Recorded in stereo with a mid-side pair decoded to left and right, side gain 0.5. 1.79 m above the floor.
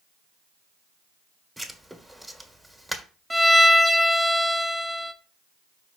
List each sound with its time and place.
1.6 s writing: 5° right, 1.5 m
3.3 s a violin: 10° right, 1.2 m